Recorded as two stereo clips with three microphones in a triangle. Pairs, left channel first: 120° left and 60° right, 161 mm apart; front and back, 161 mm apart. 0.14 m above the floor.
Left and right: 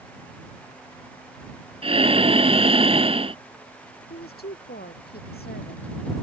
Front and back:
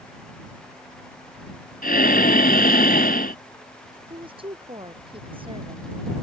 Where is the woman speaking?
125° left.